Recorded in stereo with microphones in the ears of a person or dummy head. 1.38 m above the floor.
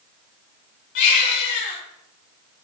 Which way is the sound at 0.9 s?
60° left (ahead or behind).